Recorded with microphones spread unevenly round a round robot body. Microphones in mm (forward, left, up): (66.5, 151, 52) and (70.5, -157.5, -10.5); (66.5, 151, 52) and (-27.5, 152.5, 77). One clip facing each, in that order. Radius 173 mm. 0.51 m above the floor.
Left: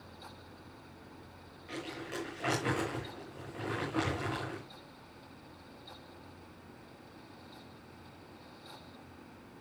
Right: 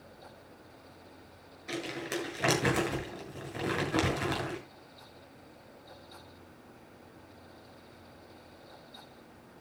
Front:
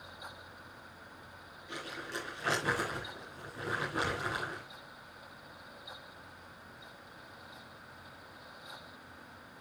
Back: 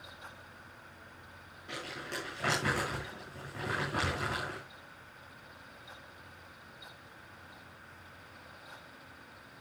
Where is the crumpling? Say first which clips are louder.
Right 5 dB, even; 120° right, 8.5 m.